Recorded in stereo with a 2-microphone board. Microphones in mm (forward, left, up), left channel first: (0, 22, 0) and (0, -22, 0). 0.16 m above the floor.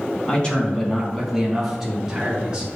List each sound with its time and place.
0.3 s a man speaking: 25° left (ahead or behind), 1.2 m; by 2.7 s 20° right (ahead or behind), 1.4 m